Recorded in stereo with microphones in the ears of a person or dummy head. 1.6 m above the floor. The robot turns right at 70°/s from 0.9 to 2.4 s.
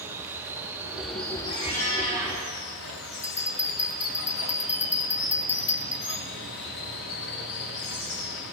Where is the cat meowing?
55° left, 5 m; by 2.4 s 120° left, 5 m.